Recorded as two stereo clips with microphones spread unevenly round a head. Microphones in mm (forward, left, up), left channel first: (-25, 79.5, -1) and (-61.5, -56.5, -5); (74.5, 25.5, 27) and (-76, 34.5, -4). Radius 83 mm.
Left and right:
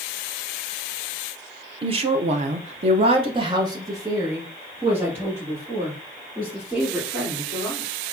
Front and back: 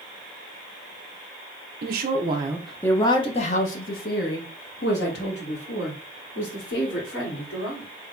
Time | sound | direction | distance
1.8 | a woman speaking | 150° right | 0.6 m